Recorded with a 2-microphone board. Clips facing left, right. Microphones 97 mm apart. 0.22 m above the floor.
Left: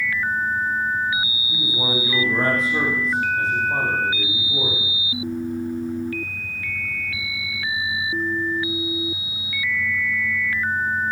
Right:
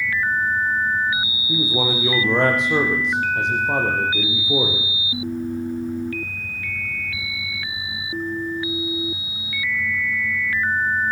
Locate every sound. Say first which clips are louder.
1.5 s a man speaking: right 5 dB; 80° right, 7.5 m